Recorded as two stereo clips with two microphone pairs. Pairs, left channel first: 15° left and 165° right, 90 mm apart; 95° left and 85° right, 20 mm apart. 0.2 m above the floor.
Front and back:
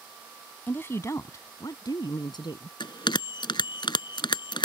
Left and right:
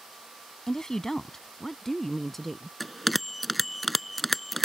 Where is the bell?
5° left.